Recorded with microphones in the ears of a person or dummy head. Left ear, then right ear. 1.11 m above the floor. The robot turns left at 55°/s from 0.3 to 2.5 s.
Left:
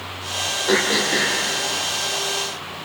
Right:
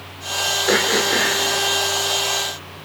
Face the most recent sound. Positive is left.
turn(degrees=145)